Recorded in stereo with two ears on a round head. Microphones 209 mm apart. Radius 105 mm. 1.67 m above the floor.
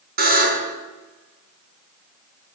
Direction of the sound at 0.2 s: 40° right (ahead or behind).